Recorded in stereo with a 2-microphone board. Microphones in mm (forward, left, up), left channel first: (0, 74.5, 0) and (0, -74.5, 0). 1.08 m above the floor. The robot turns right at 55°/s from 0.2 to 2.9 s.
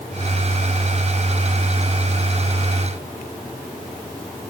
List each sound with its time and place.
Only background noise.